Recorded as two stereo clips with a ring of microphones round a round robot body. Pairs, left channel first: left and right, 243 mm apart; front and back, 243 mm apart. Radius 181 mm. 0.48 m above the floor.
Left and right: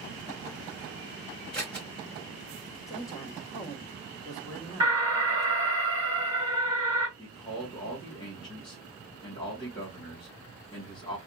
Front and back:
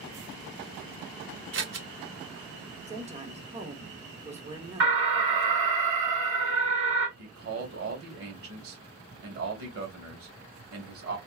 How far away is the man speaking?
About 2 m.